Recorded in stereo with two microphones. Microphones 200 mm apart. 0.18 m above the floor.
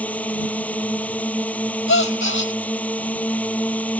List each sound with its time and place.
0.0 s a drone: 5° left (ahead or behind)
1.9 s a gasp: 90° left